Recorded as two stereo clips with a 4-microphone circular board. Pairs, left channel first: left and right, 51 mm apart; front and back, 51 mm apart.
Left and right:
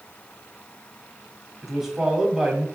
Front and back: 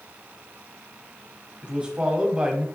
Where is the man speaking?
155° right, 1.0 m.